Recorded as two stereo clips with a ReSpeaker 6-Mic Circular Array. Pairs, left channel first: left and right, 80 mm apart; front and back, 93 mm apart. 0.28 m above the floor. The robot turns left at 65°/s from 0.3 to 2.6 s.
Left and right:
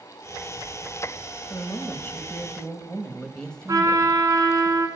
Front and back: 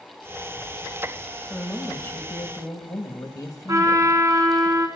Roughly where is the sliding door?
No sliding door in this recording.